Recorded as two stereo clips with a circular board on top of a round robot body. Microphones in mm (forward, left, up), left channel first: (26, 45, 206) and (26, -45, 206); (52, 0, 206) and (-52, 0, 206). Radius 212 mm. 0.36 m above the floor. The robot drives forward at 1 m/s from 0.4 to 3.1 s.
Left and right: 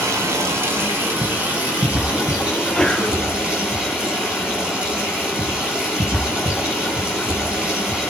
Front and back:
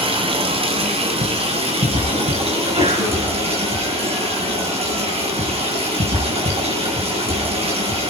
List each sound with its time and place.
0.0 s running water: 150° right, 1.8 m; by 8.1 s 170° right, 4.5 m
2.5 s a sneeze: 175° left, 5 m